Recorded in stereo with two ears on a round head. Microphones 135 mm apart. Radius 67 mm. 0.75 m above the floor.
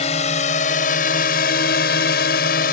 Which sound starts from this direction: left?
A drone, at 0.0 s.